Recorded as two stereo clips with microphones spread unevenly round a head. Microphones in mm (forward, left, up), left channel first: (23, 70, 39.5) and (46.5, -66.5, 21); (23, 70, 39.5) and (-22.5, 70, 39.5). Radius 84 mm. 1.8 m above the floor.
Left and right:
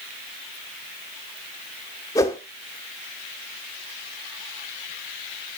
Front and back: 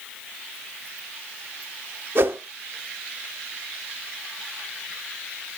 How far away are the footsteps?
I don't hear footsteps.